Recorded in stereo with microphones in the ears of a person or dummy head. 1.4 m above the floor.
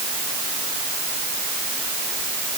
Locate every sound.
Only background noise.